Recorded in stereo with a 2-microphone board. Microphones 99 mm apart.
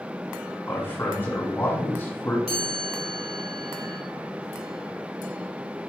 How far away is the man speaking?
About 1.8 m.